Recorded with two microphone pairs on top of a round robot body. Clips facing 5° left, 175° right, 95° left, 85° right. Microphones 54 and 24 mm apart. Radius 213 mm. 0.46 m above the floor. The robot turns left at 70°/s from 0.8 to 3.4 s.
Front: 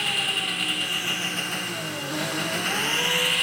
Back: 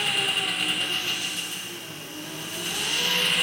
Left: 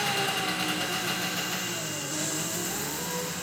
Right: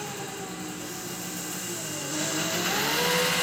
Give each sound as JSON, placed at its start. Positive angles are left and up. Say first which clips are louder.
{"t": 0.0, "sound": "an engine running", "louder": "even, left 8 dB", "azimuth_deg": 95, "distance_m": 1.3}